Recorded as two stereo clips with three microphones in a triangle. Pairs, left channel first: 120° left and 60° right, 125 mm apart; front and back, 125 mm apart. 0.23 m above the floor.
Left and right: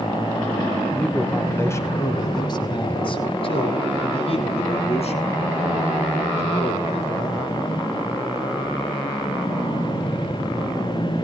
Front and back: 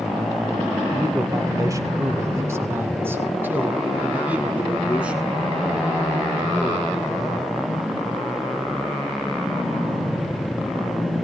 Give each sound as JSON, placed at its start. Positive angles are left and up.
{"t": 0.9, "sound": "a man speaking", "azimuth_deg": -165, "distance_m": 1.3}